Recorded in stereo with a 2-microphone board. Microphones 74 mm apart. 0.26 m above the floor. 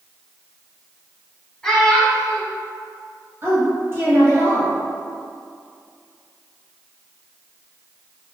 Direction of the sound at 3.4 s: 35° right (ahead or behind).